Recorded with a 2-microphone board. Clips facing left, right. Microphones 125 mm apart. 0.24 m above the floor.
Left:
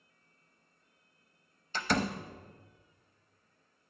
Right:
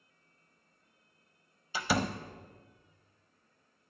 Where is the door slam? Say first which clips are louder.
Even; 10° right (ahead or behind), 0.6 m.